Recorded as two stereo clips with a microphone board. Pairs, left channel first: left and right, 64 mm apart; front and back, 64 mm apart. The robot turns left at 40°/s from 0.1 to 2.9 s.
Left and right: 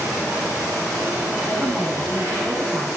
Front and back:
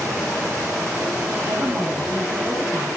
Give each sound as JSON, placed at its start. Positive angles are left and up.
{"t": 1.4, "sound": "a woman speaking", "azimuth_deg": -155, "distance_m": 7.0}